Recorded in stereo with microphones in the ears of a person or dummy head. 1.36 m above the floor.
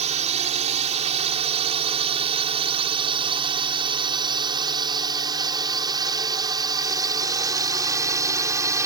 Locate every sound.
0.0 s a drone: 35° right (ahead or behind); by 8.9 s 15° right (ahead or behind)